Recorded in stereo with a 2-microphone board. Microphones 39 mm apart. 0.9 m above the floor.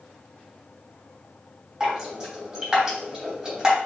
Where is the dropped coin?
I don't hear a dropped coin.